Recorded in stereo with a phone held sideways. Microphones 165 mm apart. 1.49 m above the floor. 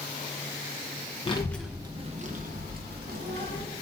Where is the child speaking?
30° left (ahead or behind), 0.7 m; by 3.6 s 65° right (ahead or behind), 2.5 m.